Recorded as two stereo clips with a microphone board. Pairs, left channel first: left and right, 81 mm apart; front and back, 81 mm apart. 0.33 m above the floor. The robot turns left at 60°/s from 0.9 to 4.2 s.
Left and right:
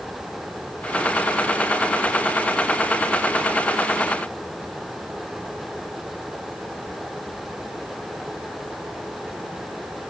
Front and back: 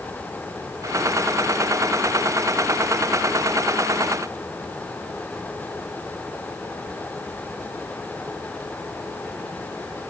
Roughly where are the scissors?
No scissors in this recording.